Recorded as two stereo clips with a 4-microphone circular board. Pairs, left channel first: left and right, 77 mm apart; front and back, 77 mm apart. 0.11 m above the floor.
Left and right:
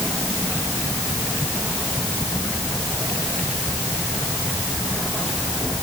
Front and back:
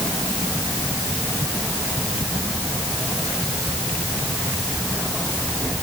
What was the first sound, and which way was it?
Only background noise.